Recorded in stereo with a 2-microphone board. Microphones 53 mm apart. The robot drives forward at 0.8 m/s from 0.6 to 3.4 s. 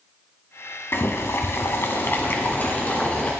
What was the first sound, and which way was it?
Boiling, 50° left (ahead or behind).